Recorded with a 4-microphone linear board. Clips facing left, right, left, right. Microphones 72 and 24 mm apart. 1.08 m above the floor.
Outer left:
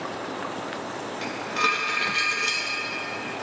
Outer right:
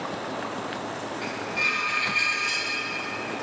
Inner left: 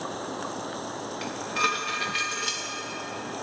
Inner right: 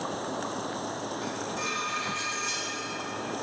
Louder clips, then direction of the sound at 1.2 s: Outer left 5 dB, inner left 9 dB; 80° left.